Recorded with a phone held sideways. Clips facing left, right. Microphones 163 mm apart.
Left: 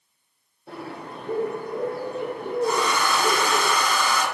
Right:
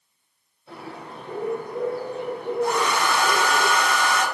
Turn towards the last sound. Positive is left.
turn(degrees=-70)  # may be behind; listen again after turning